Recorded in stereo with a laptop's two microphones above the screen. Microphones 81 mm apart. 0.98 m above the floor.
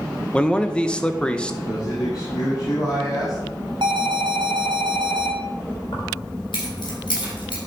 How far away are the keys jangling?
About 4 m.